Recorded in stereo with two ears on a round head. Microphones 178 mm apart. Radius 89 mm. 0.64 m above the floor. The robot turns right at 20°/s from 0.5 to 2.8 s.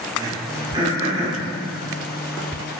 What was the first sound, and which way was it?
Throat clearing, 20° right (ahead or behind).